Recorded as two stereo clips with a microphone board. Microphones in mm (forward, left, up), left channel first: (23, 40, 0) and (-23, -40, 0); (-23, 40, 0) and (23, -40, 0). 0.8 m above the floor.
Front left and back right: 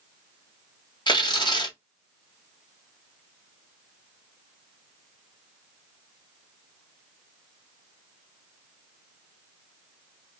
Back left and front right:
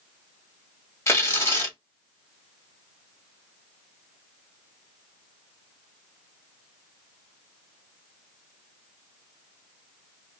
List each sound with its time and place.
1.1 s tearing paper: 65° left, 1.4 m